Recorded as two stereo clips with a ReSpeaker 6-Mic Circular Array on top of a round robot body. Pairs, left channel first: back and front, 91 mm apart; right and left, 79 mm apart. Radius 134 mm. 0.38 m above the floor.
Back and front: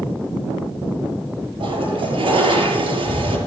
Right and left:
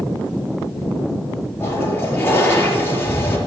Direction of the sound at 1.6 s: 20° right.